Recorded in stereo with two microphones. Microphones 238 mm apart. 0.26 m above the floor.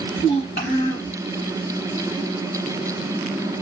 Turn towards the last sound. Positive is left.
turn(degrees=45)  # may be behind; listen again after turning